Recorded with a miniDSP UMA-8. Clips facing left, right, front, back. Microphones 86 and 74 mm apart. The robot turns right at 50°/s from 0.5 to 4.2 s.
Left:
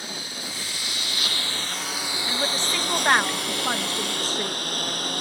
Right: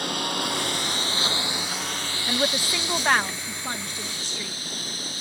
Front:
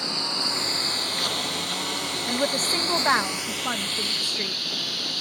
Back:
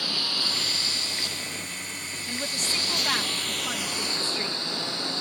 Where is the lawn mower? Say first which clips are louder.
Right 8 dB, front 2 dB; 70° right; by 5.2 s 115° left.